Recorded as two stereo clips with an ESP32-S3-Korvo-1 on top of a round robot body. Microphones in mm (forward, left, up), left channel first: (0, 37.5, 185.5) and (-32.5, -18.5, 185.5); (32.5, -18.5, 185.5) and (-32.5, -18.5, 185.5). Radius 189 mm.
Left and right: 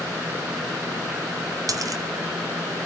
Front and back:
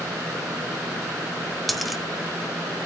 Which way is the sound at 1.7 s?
90° right.